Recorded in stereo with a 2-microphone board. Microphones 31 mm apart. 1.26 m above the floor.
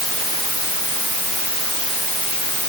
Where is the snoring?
No snoring in this recording.